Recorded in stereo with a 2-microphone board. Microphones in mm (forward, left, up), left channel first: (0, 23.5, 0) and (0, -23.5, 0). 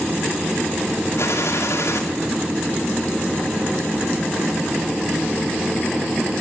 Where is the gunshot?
75° left (ahead or behind), 4.5 m.